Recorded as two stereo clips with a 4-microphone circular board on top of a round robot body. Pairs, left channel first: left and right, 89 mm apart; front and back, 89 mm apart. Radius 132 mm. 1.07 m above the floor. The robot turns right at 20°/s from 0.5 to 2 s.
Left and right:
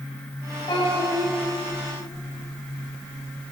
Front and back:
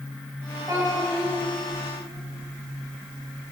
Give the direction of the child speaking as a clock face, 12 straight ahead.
8 o'clock.